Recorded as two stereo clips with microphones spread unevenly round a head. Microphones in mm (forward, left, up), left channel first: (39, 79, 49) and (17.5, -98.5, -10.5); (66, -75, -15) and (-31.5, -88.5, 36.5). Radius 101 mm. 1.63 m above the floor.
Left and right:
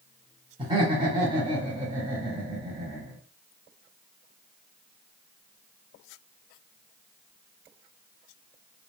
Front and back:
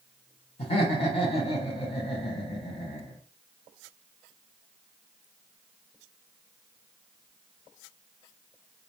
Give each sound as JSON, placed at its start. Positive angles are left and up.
{"t": 0.6, "sound": "laughter", "azimuth_deg": -25, "distance_m": 1.1}